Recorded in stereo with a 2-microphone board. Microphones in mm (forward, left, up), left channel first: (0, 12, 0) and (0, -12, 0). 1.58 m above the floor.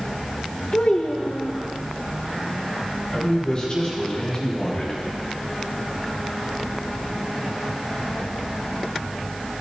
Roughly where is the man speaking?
Left.